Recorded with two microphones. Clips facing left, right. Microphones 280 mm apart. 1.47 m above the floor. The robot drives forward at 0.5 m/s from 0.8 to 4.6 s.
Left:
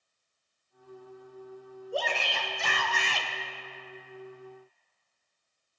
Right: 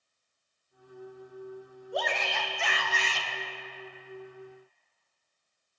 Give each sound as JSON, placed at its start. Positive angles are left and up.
{"t": 1.9, "sound": "a shout", "side_deg": 30, "distance_m": 1.0}